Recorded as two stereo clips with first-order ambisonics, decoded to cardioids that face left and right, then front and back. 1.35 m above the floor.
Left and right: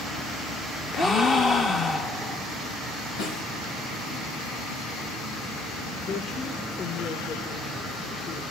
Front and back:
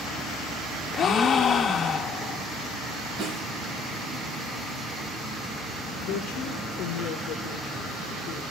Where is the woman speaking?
35° left, 4 m.